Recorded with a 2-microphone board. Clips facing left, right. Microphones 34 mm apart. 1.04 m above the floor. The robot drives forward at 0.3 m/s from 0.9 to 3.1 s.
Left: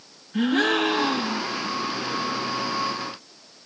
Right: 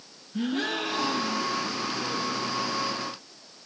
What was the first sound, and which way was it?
A gasp, 70° left (ahead or behind).